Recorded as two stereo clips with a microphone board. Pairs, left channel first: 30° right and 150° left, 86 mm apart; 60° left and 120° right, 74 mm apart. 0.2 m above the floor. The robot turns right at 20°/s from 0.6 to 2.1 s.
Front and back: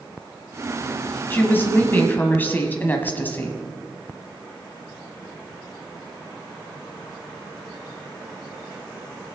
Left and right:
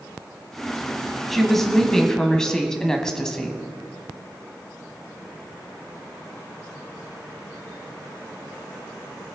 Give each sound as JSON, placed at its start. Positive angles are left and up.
{"t": 1.3, "sound": "a woman speaking", "azimuth_deg": -25, "distance_m": 1.3}